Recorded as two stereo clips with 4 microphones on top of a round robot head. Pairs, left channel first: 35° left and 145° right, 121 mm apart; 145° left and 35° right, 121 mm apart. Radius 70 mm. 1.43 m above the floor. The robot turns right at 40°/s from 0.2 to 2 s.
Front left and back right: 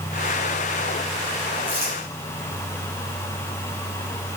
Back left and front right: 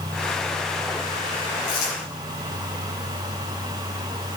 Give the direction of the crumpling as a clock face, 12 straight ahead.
7 o'clock.